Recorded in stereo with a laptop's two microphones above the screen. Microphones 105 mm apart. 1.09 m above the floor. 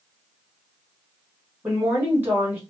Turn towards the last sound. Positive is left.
turn(degrees=-20)  # may be behind; listen again after turning